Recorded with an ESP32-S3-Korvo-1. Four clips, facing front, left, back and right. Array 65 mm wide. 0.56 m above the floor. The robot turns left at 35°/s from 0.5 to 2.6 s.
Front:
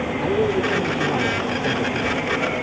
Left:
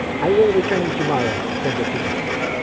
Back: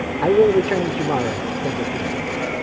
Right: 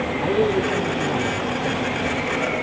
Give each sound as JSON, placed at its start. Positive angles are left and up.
{"t": 0.2, "sound": "a man speaking", "azimuth_deg": 140}